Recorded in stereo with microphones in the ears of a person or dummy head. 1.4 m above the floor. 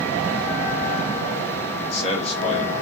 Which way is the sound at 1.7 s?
30° left (ahead or behind).